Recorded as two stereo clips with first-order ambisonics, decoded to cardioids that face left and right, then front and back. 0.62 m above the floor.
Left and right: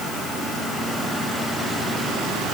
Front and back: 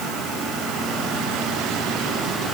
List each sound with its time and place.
Only background noise.